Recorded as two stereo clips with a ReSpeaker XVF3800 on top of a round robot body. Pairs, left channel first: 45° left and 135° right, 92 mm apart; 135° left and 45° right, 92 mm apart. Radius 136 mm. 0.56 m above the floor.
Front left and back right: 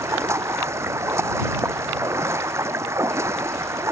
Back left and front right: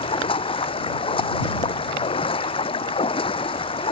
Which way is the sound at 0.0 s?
165° left.